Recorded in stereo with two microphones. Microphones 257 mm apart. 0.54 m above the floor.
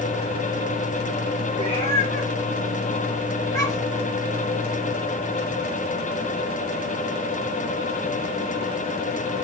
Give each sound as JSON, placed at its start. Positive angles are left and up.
{"t": 1.5, "sound": "a cat meowing", "side_deg": 25, "distance_m": 4.5}